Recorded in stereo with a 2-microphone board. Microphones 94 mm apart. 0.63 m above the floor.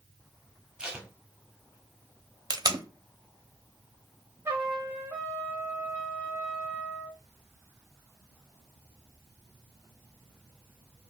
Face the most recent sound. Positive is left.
turn(degrees=-25)  # may be behind; listen again after turning